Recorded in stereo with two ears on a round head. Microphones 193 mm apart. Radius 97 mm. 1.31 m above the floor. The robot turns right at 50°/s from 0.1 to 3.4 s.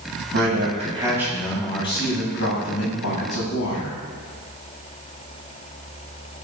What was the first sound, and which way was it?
A man speaking, 55° right.